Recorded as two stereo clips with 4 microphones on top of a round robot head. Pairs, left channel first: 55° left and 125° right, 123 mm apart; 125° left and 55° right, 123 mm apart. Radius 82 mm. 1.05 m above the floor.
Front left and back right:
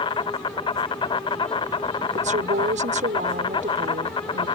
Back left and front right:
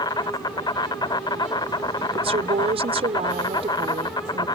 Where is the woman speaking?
100° right.